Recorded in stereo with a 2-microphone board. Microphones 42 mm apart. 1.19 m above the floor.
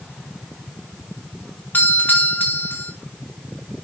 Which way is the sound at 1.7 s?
50° left (ahead or behind).